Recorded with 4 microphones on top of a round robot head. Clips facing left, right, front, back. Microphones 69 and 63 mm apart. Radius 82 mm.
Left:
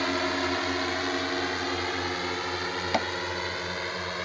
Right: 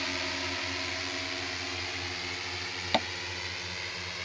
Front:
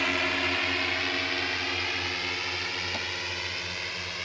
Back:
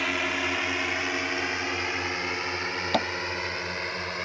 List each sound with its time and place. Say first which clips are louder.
0.0 s a drone: left 8 dB, even; 95° left; by 4.3 s 125° left
2.9 s tapping: left 1 dB, back 9 dB; 170° left